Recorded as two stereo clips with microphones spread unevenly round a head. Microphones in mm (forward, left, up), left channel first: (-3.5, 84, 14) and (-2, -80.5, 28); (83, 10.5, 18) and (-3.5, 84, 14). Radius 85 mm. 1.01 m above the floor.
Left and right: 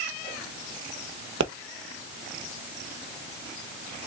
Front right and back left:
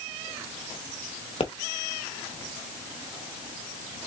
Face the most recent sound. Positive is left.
turn(degrees=-95)